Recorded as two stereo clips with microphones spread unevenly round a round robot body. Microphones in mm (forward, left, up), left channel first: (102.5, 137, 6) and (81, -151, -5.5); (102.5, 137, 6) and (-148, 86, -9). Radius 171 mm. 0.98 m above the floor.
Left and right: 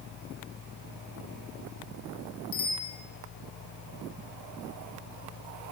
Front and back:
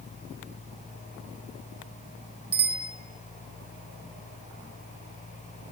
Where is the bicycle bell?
140° left, 3 m.